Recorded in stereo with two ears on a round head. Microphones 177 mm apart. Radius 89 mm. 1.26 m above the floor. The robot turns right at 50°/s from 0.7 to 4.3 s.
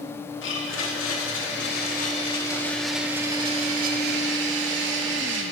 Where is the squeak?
No squeak in this recording.